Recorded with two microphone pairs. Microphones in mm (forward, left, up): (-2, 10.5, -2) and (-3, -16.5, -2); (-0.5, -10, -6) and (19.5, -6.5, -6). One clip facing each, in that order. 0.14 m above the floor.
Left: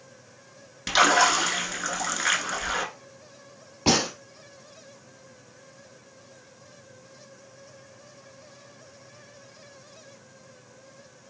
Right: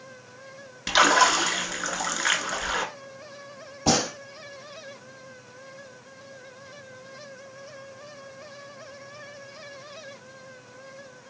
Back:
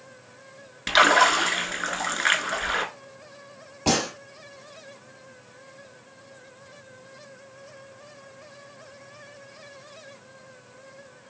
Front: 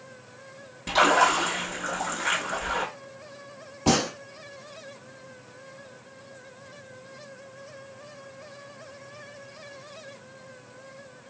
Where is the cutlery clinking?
No cutlery clinking in this recording.